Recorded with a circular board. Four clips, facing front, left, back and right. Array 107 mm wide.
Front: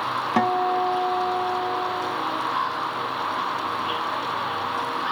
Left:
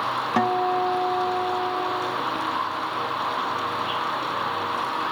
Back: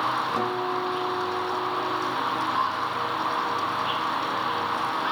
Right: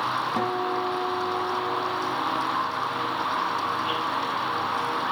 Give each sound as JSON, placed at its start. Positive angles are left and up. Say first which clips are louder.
{"t": 0.4, "sound": "a guitar", "louder": "left 4 dB, front 5 dB", "azimuth_deg": 35, "distance_m": 0.8}